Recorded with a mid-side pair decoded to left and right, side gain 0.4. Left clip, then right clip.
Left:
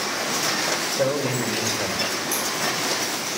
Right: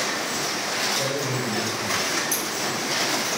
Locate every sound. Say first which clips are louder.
0.9 s a man speaking: left 2 dB; 65° left, 3 m
2.3 s scissors: left 1 dB; 20° right, 7.5 m